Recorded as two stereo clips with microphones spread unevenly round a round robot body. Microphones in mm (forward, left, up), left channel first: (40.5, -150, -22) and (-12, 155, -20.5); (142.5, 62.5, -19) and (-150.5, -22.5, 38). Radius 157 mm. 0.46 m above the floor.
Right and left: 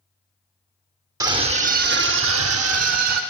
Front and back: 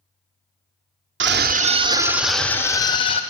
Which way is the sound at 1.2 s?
170° left.